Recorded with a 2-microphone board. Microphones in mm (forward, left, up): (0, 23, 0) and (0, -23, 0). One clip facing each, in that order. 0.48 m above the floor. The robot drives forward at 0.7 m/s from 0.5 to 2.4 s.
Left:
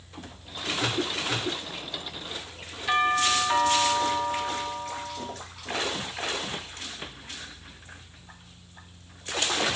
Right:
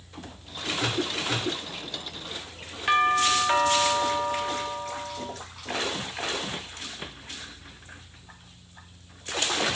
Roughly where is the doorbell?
Right.